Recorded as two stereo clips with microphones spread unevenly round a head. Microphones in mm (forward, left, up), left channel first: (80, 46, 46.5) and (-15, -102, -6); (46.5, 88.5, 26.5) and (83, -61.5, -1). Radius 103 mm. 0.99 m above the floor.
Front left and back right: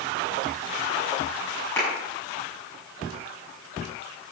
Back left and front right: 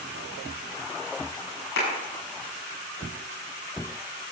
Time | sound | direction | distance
1.8 | a clap | 135° left | 7 m